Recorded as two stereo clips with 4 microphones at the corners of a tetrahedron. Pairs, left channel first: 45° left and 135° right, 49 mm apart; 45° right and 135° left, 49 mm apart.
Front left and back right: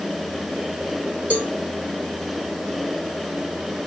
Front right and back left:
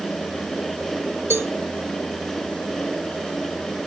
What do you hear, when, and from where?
1.3 s a cowbell: 165° left, 3 m